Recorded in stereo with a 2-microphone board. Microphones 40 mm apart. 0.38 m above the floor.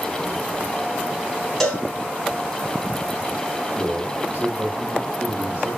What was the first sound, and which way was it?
A cowbell, 5° left (ahead or behind).